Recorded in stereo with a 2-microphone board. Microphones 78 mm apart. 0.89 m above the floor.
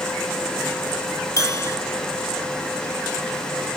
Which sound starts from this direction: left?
A bell, at 1.4 s.